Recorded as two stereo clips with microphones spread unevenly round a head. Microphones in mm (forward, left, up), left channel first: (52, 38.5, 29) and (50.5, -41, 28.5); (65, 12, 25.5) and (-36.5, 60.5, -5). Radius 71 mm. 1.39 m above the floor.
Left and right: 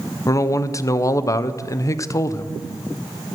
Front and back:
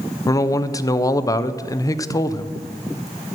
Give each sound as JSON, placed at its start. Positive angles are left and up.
{"t": 0.3, "sound": "a man speaking", "azimuth_deg": 40, "distance_m": 0.7}